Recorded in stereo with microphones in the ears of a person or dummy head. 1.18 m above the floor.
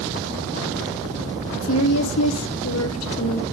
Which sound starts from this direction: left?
A woman speaking, at 1.6 s.